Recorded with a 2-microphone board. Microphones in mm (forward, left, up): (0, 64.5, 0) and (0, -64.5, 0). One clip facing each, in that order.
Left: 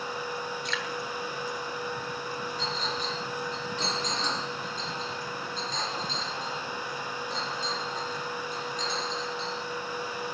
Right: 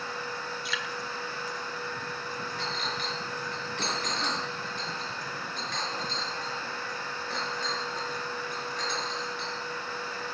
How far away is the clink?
About 3.5 m.